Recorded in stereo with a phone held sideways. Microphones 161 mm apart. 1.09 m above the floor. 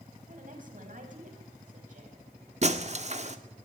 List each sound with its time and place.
0.3 s a woman speaking: 60° right (ahead or behind), 7 m
2.6 s breaking glass: 45° right (ahead or behind), 1.7 m